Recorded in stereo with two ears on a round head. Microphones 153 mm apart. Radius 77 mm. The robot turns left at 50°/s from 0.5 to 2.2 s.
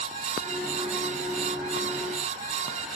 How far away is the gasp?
No gasp in this recording.